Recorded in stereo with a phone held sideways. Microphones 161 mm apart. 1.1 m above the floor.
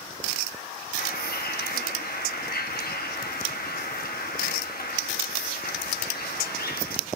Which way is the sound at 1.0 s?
70° left (ahead or behind).